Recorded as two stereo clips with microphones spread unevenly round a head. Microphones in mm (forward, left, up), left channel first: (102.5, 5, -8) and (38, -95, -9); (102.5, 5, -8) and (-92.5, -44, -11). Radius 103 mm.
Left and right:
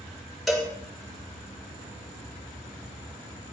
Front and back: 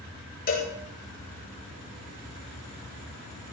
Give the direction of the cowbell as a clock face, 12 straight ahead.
1 o'clock.